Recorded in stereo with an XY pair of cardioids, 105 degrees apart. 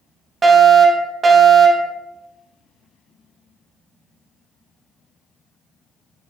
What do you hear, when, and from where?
0.4 s a fire alarm: 40° right, 3 m